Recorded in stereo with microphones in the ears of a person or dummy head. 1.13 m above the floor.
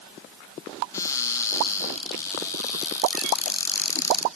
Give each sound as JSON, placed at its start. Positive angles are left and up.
{"t": 0.9, "sound": "a cupboard door", "side_deg": 20, "distance_m": 1.5}